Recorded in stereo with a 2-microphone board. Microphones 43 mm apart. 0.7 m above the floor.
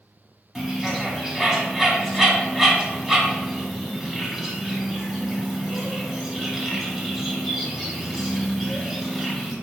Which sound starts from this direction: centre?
A bird, at 0.6 s.